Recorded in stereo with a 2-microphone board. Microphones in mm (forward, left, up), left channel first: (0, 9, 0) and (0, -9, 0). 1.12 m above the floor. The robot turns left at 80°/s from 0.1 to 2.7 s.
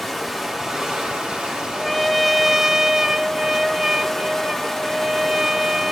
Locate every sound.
0.0 s running water: 10° left, 2.5 m; by 5.9 s 160° left, 2.5 m
1.7 s a trumpet: 25° left, 1.1 m; by 5.9 s 50° right, 1.1 m